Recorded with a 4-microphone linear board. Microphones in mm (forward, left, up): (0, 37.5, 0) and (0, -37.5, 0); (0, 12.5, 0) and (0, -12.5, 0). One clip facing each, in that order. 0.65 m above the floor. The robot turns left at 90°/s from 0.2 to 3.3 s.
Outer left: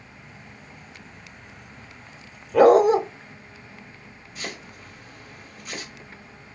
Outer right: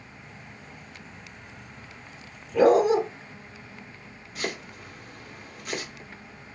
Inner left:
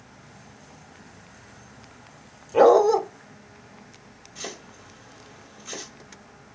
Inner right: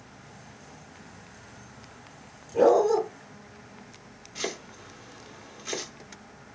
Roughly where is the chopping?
Right.